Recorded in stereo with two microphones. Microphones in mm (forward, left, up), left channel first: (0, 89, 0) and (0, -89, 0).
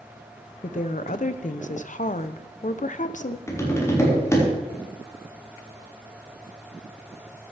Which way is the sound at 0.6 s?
50° left (ahead or behind).